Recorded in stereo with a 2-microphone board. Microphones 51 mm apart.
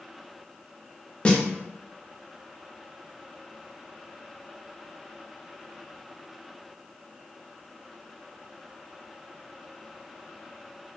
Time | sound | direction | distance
1.2 | a snare drum | 25° left (ahead or behind) | 0.5 m